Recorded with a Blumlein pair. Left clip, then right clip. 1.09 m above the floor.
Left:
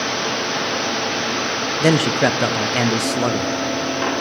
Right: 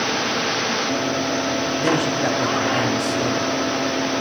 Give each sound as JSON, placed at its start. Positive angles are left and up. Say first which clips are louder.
{"t": 1.8, "sound": "a man speaking", "louder": "left 6 dB", "azimuth_deg": 25, "distance_m": 0.8}